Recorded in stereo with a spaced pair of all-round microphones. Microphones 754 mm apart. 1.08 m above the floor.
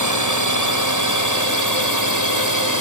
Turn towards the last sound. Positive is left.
turn(degrees=-25)  # may be behind; listen again after turning